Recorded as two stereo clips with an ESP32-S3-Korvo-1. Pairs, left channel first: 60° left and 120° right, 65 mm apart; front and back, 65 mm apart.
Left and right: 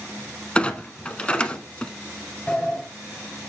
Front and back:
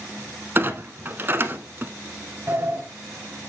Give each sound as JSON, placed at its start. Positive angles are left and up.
{"t": 0.6, "sound": "a clunk", "azimuth_deg": 130, "distance_m": 0.6}
{"t": 2.5, "sound": "a sliding door", "azimuth_deg": 130, "distance_m": 0.9}